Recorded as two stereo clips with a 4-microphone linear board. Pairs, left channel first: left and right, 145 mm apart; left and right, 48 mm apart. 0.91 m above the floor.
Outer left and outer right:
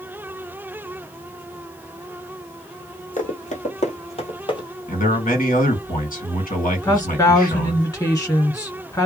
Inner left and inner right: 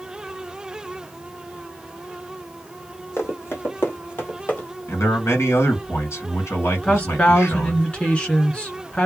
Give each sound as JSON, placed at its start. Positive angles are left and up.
{"t": 3.2, "sound": "running footsteps", "side_deg": 60, "distance_m": 1.7}
{"t": 4.9, "sound": "a man speaking", "side_deg": 70, "distance_m": 2.0}
{"t": 6.8, "sound": "a woman speaking", "side_deg": 25, "distance_m": 1.8}